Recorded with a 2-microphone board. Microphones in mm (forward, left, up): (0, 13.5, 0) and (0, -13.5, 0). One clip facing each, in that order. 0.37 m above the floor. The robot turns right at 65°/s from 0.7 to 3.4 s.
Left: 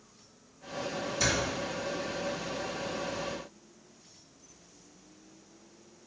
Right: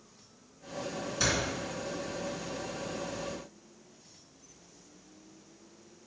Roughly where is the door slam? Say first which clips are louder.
Even; right.